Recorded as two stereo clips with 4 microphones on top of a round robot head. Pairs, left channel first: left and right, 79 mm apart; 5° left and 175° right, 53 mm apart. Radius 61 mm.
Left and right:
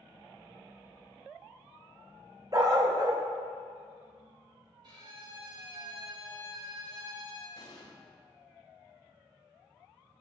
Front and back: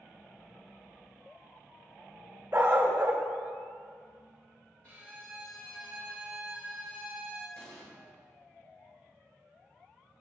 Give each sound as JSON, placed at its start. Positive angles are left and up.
{"t": 2.5, "sound": "a dog barking", "azimuth_deg": -130, "distance_m": 0.6}
{"t": 4.8, "sound": "a violin", "azimuth_deg": -65, "distance_m": 2.5}
{"t": 7.6, "sound": "an explosion", "azimuth_deg": 50, "distance_m": 1.4}